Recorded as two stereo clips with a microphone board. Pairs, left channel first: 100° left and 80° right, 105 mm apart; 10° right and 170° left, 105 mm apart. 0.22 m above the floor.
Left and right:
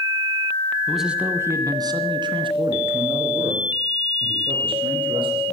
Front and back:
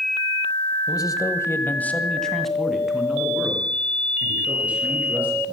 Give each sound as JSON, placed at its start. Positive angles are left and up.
{"t": 0.9, "sound": "a man speaking", "azimuth_deg": 10, "distance_m": 1.5}